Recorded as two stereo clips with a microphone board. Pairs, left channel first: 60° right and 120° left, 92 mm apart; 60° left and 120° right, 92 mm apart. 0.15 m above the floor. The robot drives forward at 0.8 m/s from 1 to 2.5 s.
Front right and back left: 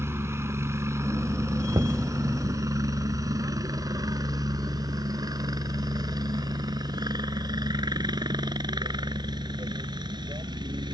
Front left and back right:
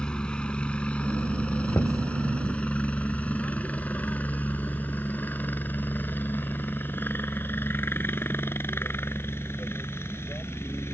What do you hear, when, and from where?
0.0 s a helicopter: 130° left; by 10.9 s 115° left
1.7 s knocking: 100° left; by 2.0 s 105° left